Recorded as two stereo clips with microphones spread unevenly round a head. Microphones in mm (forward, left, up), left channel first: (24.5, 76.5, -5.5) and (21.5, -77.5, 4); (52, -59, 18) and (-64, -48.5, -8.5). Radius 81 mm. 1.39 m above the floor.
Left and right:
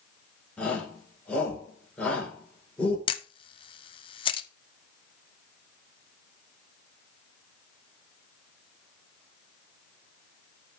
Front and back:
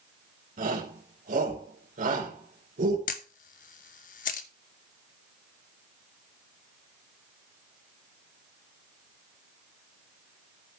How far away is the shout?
About 4.5 m.